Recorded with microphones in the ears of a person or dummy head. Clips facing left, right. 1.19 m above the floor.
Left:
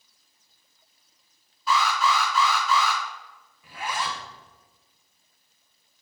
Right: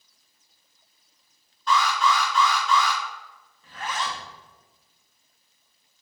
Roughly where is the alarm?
Centre.